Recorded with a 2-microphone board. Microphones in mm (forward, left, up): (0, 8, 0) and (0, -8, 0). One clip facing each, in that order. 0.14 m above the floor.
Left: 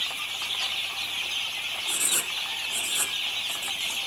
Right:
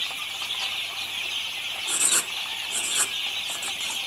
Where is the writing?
25° right (ahead or behind), 1.0 m.